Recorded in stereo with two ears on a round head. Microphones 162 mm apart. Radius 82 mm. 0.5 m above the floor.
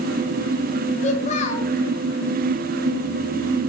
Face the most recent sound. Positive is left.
turn(degrees=40)  # may be behind; listen again after turning